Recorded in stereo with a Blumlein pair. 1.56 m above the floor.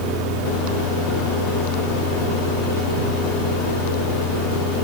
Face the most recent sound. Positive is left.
turn(degrees=30)